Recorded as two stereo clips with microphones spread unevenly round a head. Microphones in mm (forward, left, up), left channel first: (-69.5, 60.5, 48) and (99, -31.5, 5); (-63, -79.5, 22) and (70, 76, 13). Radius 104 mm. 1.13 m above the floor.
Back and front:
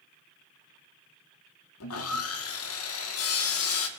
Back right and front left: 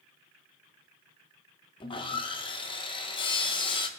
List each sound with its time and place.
1.8 s sawing: 165° left, 0.9 m